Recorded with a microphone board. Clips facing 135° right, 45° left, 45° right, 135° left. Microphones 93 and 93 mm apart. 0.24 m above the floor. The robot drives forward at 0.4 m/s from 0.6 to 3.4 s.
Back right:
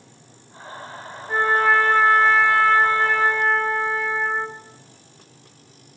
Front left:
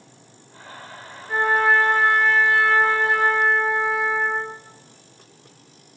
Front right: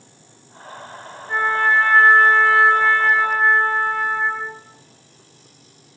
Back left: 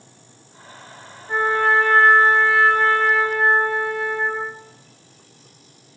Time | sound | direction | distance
1.3 | a trumpet | 140° right | 2 m